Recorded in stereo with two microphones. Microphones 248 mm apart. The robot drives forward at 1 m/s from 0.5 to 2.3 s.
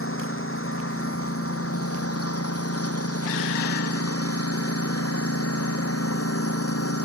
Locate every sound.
0.0 s a lawn mower: 60° left (ahead or behind); by 7.1 s 70° left (ahead or behind)